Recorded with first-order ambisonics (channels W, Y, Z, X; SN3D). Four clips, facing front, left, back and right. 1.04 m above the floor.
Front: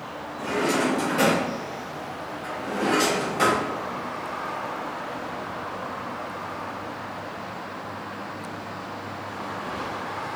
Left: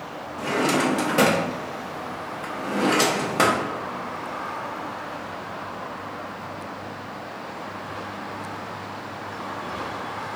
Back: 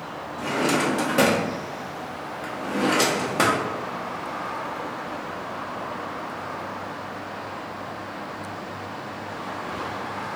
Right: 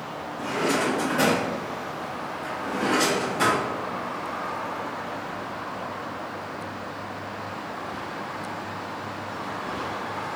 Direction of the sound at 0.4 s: 125° left.